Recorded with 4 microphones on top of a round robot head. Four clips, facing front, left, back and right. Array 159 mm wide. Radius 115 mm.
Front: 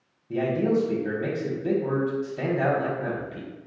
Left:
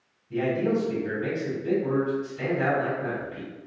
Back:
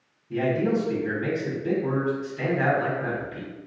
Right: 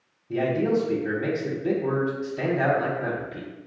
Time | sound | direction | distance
0.3 | a man speaking | 45° right | 1.1 m